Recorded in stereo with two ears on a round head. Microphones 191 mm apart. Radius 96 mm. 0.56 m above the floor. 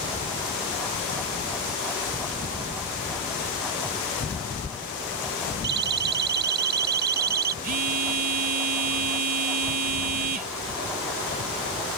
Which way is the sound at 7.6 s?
40° right (ahead or behind).